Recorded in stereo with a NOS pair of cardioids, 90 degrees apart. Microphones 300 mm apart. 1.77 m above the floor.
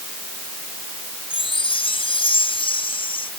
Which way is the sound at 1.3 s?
15° left.